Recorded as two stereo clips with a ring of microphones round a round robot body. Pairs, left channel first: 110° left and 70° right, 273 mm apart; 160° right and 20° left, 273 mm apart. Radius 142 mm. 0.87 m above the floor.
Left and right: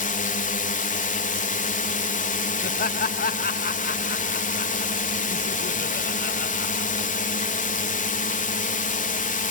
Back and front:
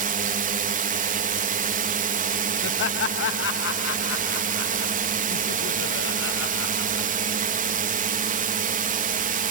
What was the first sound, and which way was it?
A drone, 65° left.